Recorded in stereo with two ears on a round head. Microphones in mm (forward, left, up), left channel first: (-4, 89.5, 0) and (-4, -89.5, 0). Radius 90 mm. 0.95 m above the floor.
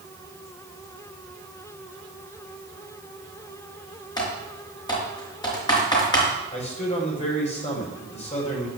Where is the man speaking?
35° left (ahead or behind), 5 m.